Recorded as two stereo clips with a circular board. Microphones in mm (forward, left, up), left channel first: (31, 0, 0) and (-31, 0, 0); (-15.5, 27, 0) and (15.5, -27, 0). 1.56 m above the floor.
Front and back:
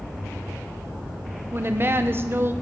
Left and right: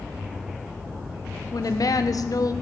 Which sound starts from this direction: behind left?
A woman speaking, at 1.5 s.